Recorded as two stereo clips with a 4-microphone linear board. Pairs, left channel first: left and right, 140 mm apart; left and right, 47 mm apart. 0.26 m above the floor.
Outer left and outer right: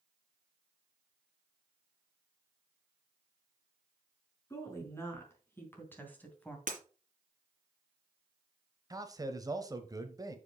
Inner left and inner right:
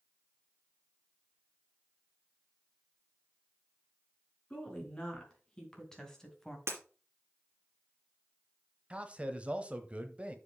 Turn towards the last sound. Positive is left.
turn(degrees=-25)  # may be behind; listen again after turning